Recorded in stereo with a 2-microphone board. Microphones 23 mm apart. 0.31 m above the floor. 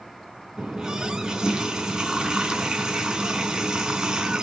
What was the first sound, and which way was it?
A running tap, 40° right (ahead or behind).